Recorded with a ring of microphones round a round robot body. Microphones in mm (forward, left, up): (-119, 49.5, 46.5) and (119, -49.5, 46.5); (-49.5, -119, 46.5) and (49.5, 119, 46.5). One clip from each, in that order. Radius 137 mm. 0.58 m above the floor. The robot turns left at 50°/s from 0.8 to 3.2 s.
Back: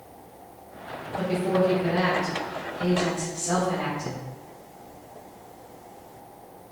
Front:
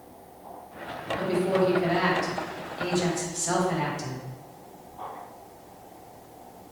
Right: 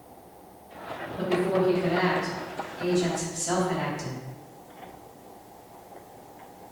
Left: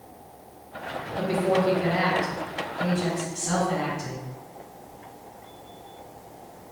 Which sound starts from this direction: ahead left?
A woman speaking, at 1.2 s.